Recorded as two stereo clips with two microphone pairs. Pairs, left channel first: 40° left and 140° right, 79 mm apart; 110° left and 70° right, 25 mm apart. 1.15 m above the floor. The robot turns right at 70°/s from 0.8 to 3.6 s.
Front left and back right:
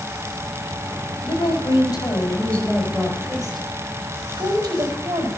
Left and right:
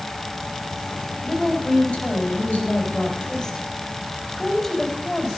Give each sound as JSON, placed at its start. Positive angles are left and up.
{"t": 1.2, "sound": "a woman speaking", "azimuth_deg": 25, "distance_m": 4.0}